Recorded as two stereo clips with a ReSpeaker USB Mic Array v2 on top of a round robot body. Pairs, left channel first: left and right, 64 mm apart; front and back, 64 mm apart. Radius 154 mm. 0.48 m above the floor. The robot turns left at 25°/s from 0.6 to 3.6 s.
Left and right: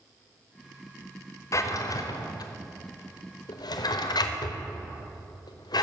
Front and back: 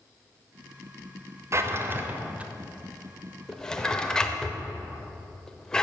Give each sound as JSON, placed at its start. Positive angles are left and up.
{"t": 1.5, "sound": "a drawer", "azimuth_deg": 135, "distance_m": 0.8}